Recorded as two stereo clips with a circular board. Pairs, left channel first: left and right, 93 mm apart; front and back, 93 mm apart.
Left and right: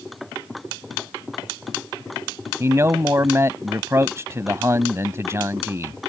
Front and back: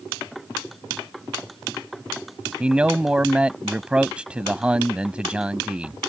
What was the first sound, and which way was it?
A man speaking, 110° right.